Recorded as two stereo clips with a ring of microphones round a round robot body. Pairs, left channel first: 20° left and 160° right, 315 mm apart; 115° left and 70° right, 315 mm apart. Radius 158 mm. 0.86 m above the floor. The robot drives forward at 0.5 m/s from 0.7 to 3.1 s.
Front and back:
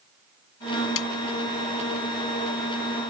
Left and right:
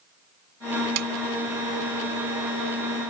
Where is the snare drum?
25° right.